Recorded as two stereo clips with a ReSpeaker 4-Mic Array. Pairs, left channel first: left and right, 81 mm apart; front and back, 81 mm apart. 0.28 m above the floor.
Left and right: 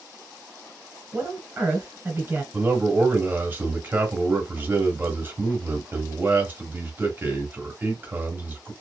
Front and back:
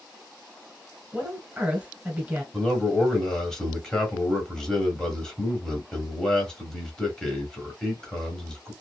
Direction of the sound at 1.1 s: 115° right.